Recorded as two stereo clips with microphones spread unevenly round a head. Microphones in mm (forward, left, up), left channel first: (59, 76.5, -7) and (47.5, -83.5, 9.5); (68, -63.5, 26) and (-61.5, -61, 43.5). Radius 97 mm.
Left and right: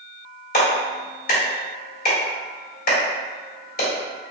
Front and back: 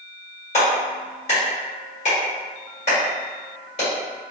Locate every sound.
0.5 s a clap: 55° left, 1.7 m